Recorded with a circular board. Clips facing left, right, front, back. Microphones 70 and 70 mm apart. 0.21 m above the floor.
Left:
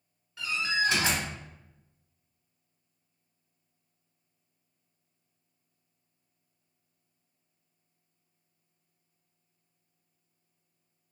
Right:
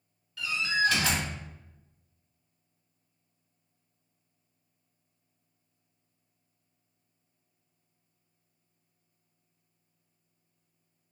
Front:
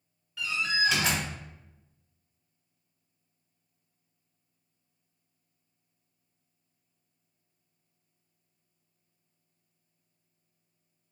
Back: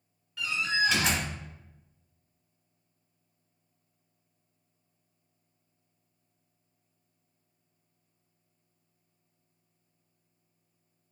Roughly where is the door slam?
Left.